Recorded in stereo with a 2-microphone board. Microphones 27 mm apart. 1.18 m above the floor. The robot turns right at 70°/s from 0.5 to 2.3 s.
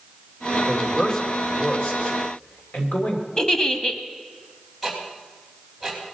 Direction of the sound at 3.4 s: 25° left (ahead or behind).